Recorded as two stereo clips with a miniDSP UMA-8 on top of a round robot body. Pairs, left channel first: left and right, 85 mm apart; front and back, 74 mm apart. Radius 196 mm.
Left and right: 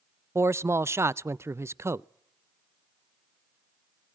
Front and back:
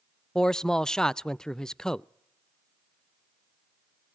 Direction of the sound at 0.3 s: 75° right.